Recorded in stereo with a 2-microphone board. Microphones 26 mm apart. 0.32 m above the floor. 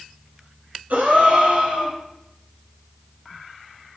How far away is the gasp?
About 0.9 m.